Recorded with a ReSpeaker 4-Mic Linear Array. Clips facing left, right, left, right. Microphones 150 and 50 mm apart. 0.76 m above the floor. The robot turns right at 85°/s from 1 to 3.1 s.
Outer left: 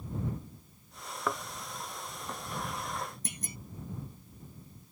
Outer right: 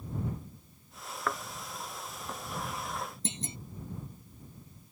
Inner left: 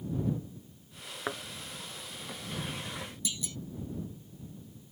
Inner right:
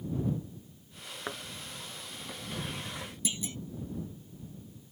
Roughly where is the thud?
Centre.